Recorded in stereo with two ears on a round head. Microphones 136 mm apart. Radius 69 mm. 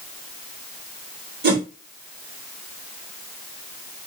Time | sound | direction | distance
1.4 | a whoosh | 70° right (ahead or behind) | 1.8 m